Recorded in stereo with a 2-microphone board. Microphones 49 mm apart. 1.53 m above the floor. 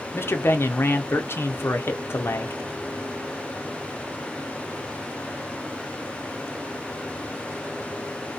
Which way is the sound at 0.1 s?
55° left (ahead or behind).